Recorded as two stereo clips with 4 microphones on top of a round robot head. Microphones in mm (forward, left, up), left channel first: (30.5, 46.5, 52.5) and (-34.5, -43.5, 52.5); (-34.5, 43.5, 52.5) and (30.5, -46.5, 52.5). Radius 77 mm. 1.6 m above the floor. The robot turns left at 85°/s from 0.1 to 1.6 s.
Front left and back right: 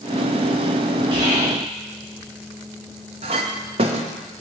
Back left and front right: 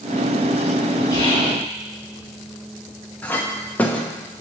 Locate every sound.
1.1 s whispering: 175° right, 6 m; by 1.6 s 145° left, 6 m
3.2 s a clink: 160° right, 0.9 m